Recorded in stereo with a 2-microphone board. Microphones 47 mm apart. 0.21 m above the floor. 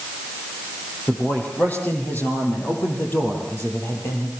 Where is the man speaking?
35° left (ahead or behind), 8 m; by 4.3 s 55° left (ahead or behind), 7.5 m.